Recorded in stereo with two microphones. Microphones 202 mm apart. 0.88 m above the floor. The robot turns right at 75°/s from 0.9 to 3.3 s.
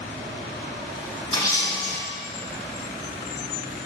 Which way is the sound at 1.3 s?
145° left.